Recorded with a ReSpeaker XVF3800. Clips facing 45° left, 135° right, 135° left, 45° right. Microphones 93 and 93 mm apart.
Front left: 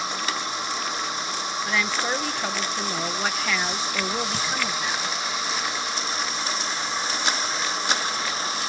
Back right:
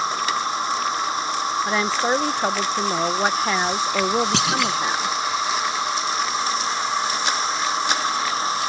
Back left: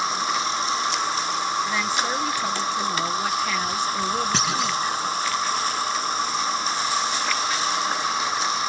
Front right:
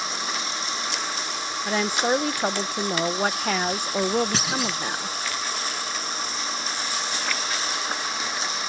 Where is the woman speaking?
80° right.